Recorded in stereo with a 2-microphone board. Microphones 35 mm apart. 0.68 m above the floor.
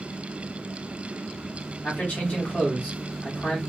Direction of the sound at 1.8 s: 45° left (ahead or behind).